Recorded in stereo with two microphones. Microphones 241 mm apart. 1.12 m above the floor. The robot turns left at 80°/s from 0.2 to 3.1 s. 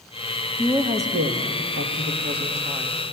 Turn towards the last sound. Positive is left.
turn(degrees=165)